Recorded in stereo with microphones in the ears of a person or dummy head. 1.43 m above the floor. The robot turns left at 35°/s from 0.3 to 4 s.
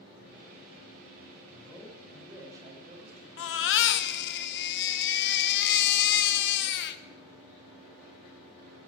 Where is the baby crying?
80° left, 1.0 m; by 7.0 s 65° left (ahead or behind), 1.0 m.